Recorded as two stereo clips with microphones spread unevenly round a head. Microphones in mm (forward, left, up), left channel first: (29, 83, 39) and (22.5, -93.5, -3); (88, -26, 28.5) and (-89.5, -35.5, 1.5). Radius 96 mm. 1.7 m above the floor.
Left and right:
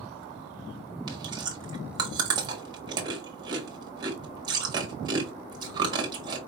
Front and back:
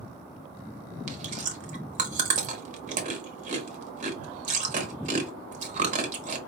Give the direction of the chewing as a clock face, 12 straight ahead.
5 o'clock.